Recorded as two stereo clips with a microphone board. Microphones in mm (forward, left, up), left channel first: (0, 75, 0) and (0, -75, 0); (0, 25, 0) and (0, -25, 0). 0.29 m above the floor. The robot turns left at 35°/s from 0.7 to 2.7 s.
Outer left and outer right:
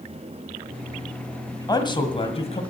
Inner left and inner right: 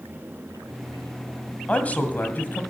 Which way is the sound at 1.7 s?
145° left.